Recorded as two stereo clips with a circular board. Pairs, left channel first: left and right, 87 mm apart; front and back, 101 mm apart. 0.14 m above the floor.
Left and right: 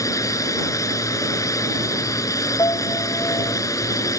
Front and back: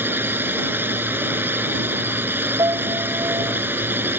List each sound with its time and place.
0.0 s a drone: 120° left
2.6 s a piano: 135° left